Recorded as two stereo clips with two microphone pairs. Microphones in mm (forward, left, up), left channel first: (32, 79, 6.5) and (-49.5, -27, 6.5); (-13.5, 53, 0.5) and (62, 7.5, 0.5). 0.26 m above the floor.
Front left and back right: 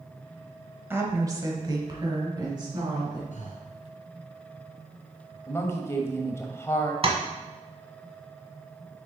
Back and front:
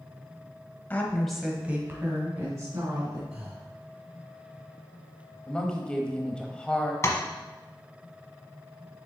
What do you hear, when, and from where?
0.9 s a woman speaking: 175° right, 1.0 m; by 3.2 s 70° right, 2.5 m
3.3 s breathing: 40° left, 1.3 m
5.5 s a woman speaking: 85° left, 0.9 m
7.0 s tapping: 160° right, 1.0 m